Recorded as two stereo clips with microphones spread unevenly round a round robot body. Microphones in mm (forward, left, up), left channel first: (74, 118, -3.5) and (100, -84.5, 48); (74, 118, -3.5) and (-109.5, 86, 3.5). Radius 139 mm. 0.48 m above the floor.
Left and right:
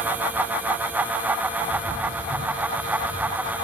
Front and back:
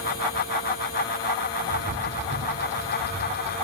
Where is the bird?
165° right, 1.1 m.